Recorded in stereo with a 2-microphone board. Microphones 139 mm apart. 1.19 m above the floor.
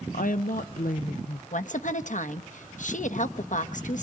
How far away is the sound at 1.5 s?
About 1.0 m.